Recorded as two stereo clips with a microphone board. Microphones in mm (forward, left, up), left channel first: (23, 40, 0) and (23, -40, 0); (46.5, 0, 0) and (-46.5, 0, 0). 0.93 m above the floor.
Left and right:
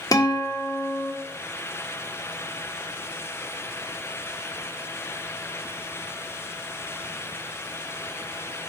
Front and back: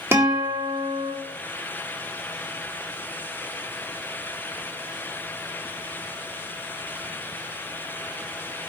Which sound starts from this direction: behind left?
A guitar, at 0.1 s.